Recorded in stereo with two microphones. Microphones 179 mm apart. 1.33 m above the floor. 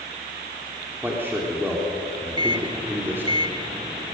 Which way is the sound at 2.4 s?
20° right (ahead or behind).